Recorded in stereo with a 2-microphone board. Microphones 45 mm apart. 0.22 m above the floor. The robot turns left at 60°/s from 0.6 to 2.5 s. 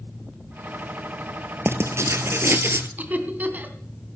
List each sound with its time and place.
1.6 s writing: 65° right, 1.1 m; by 2.9 s 115° right, 1.1 m
3.0 s laughter: 40° right (ahead or behind), 2 m